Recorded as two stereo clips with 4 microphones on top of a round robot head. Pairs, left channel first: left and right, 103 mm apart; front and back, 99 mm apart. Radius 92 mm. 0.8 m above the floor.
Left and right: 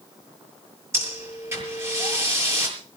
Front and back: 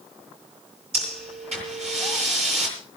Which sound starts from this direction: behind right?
Breathing, at 0.9 s.